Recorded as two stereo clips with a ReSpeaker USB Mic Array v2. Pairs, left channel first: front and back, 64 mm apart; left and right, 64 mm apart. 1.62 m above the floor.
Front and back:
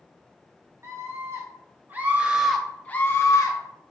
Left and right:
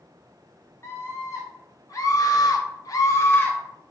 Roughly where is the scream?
Behind left.